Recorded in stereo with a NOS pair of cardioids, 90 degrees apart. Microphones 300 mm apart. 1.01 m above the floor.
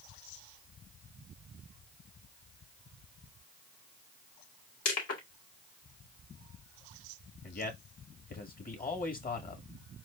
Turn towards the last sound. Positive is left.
turn(degrees=30)